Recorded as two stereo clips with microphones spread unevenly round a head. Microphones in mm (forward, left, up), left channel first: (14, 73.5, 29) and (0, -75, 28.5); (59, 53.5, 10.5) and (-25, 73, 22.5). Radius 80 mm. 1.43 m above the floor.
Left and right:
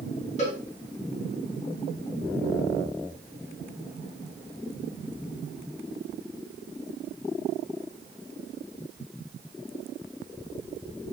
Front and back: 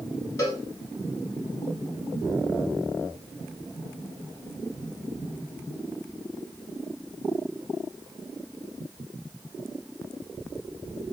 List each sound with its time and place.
0.4 s a cowbell: 40° left, 1.6 m